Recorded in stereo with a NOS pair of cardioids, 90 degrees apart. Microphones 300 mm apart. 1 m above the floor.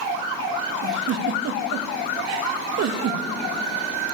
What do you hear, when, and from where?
0.8 s a giggle: 65° right, 0.8 m